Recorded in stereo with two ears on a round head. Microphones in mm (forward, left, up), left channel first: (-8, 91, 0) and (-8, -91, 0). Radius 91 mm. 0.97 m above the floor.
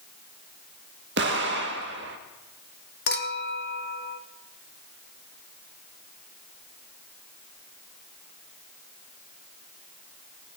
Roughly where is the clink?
Left.